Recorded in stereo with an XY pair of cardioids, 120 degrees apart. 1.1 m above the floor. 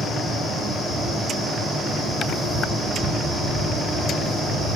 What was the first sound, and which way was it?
A fan, 10° right.